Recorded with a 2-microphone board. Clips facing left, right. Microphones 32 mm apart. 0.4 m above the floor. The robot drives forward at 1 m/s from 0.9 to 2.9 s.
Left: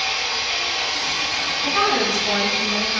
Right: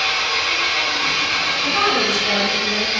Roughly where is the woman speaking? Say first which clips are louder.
Even; centre.